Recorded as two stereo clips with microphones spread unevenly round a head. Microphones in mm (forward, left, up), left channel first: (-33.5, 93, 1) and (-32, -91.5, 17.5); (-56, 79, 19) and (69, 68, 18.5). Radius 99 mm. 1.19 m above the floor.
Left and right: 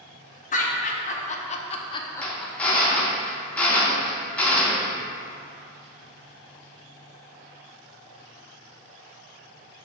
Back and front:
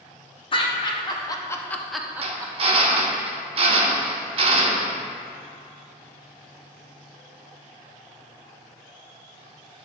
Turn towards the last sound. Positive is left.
turn(degrees=5)